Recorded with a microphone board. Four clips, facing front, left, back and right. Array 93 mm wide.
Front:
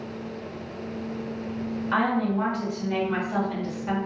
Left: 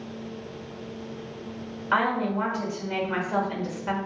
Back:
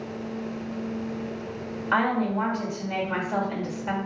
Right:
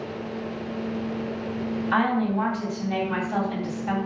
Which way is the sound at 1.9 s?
120° left.